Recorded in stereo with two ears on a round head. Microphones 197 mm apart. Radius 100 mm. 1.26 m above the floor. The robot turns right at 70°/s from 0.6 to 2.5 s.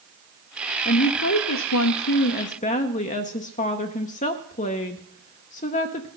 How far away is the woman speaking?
About 0.6 m.